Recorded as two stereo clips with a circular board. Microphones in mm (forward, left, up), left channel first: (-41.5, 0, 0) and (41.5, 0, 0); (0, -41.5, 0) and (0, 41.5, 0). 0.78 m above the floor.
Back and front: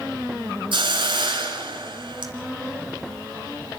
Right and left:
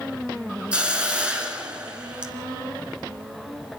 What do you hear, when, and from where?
0.7 s a hiss: 15° left, 2.5 m